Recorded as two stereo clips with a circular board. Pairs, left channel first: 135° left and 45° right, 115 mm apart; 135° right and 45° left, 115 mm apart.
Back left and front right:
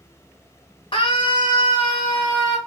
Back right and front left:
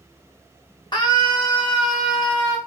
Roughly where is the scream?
Behind.